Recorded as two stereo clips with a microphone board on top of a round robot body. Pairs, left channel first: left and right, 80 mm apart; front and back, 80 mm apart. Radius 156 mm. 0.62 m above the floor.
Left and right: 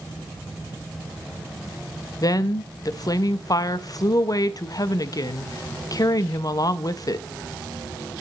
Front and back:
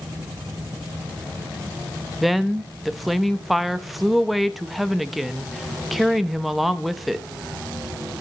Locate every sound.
2.2 s a woman speaking: 90° left, 0.8 m